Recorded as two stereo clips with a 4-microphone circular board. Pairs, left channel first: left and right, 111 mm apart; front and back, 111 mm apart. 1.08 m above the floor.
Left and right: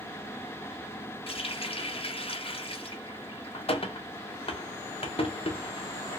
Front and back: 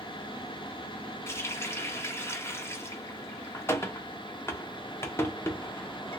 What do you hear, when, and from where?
1.3 s a running tap: 65° left, 0.6 m